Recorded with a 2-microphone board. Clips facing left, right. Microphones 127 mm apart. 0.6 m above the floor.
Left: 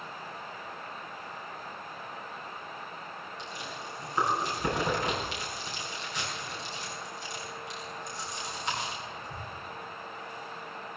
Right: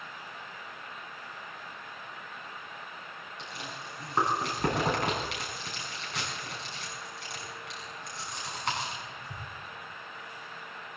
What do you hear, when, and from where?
3.4 s chewing: 75° right (ahead or behind), 6 m